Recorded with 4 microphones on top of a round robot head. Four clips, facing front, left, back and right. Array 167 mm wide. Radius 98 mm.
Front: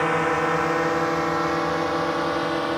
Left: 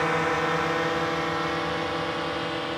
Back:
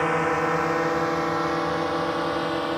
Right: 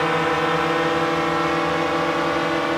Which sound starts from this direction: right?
A drone, at 0.0 s.